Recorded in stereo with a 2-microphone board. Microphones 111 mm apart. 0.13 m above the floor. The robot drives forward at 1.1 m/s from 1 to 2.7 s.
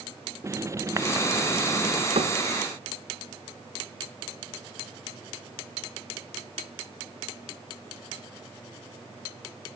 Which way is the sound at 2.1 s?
80° right.